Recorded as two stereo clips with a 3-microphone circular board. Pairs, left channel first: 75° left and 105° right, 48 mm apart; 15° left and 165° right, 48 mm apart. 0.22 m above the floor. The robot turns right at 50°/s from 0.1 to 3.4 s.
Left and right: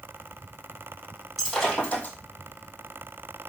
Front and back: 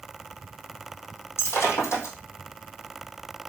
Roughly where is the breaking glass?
Ahead.